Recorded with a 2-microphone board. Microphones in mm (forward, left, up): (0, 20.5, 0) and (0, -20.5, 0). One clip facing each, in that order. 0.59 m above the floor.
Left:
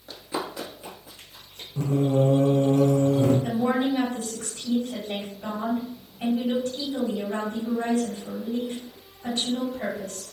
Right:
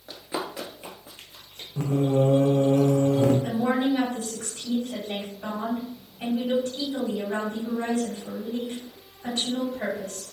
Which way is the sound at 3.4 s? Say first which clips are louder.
Even; 50° right (ahead or behind).